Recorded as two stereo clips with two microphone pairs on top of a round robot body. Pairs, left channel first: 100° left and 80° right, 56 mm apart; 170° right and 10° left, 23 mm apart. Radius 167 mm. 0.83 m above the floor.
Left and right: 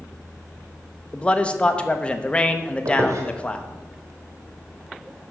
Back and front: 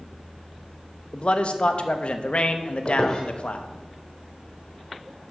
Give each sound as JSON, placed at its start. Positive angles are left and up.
{"t": 1.1, "sound": "a man speaking", "azimuth_deg": 165, "distance_m": 1.0}
{"t": 2.9, "sound": "a squeak", "azimuth_deg": -110, "distance_m": 1.0}